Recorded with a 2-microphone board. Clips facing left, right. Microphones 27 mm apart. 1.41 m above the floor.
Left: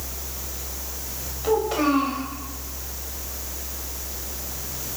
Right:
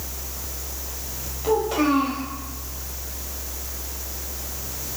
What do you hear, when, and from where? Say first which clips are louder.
1.4 s a child speaking: right 1 dB; 10° left (ahead or behind), 4.5 m